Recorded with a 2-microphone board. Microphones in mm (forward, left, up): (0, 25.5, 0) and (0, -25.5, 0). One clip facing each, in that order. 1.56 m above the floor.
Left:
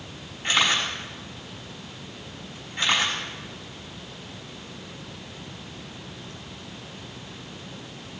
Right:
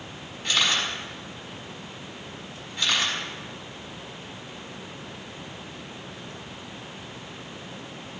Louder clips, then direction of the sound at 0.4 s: Left 2 dB; 35° left (ahead or behind).